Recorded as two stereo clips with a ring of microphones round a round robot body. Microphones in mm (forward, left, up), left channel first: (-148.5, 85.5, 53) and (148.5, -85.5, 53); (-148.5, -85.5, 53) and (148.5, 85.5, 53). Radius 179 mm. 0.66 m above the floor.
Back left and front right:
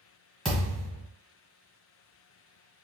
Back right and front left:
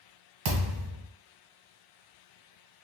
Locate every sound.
0.5 s a thud: 60° left, 1.4 m